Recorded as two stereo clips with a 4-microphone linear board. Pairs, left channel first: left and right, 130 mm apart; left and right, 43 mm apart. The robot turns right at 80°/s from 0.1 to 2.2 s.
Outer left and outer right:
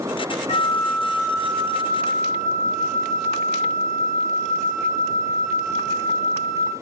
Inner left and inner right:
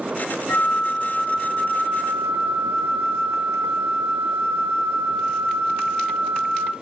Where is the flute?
125° left, 3.5 m; by 6.7 s 95° right, 3.5 m.